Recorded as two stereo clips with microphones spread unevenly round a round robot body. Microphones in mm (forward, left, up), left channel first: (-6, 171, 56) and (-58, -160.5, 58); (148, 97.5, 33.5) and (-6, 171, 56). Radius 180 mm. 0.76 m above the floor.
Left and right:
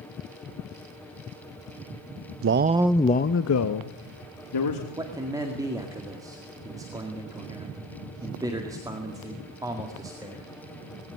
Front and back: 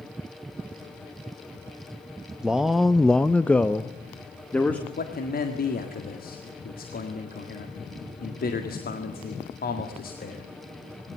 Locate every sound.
2.4 s a man speaking: 110° right, 0.8 m; by 4.9 s 55° left, 2 m
5.0 s a man speaking: 20° right, 1.9 m